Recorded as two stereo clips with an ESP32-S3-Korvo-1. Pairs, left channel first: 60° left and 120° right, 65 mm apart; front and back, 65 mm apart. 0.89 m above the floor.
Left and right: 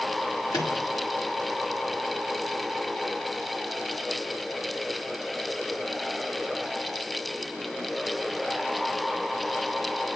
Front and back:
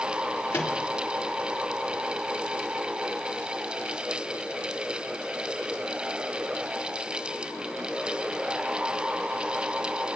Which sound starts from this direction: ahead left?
A microwave, at 0.5 s.